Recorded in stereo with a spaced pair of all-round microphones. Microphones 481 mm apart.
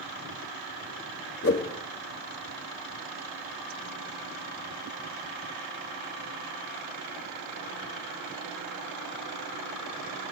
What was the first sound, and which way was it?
A whoosh, 30° left (ahead or behind).